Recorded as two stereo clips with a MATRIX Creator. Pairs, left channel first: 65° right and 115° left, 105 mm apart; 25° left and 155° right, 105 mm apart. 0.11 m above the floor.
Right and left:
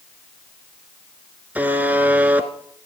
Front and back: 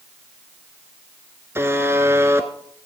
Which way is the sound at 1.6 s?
170° left.